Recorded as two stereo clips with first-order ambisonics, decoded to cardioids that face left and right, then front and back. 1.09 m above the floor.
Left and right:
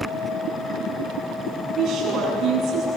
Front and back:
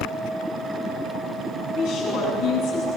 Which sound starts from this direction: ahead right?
A woman speaking, at 1.7 s.